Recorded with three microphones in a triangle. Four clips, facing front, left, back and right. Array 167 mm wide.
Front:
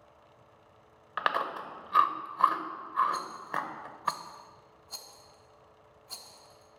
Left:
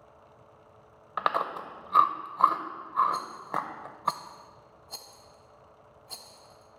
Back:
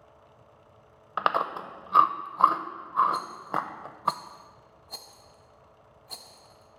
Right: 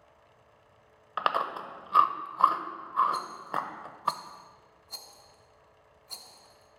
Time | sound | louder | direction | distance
1.2 | chewing | even, back 4 dB | 165° left | 0.6 m
3.1 | a rattle | left 1 dB, back 4 dB | 145° left | 0.9 m